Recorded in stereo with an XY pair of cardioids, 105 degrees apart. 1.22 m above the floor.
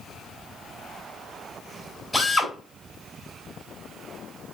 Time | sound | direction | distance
2.1 | a drill | 5° left | 5.5 m